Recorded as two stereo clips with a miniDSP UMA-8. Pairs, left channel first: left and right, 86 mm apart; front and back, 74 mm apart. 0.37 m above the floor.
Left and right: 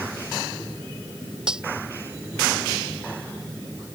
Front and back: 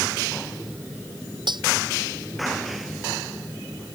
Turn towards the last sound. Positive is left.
turn(degrees=-170)